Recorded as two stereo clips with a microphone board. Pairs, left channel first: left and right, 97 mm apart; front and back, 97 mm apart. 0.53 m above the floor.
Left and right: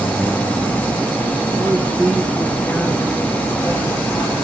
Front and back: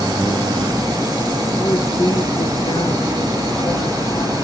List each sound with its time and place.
1.6 s a woman speaking: 35° right, 0.8 m; by 4.3 s 30° left, 3 m